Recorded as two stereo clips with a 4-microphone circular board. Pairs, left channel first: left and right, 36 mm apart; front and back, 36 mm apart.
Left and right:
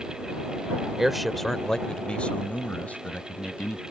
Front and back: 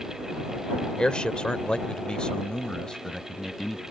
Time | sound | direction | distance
1.0 | a man speaking | 25° right | ?